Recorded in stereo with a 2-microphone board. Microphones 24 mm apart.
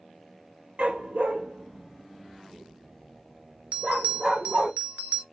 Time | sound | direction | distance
0.8 | a dog barking | 65° right (ahead or behind) | 1.1 m
3.7 | a bell | 60° right (ahead or behind) | 0.7 m